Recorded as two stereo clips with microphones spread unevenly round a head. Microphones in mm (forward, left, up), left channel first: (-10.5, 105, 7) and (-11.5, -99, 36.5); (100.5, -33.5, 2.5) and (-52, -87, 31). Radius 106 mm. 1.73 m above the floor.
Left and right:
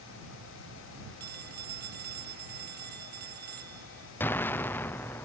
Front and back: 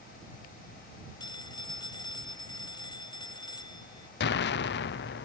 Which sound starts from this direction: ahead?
An explosion, at 4.2 s.